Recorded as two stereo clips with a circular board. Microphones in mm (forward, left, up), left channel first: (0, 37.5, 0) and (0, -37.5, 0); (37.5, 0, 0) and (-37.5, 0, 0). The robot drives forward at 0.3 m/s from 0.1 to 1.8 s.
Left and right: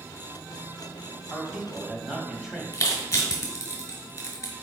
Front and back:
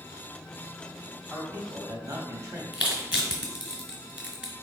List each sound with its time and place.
1.3 s a man speaking: 170° right, 1.0 m
2.7 s crushing: 120° left, 1.5 m